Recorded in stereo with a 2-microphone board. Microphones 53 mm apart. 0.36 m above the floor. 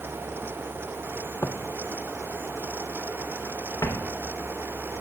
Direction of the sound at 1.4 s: 55° left (ahead or behind).